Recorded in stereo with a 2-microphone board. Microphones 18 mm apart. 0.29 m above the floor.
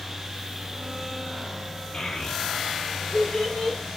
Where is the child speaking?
70° left (ahead or behind), 2 m; by 3.8 s 60° left (ahead or behind), 1.7 m.